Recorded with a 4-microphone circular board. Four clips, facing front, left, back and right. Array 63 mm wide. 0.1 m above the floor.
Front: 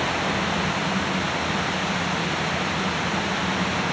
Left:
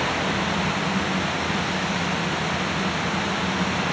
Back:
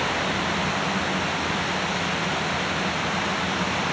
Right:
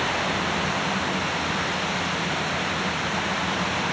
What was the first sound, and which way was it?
Only background noise.